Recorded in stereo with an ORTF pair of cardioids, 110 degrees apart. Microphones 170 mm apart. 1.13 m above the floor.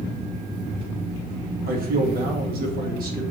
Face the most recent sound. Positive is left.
turn(degrees=-65)